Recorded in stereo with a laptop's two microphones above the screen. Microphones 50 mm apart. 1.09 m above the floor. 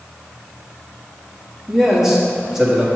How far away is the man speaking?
About 1.7 m.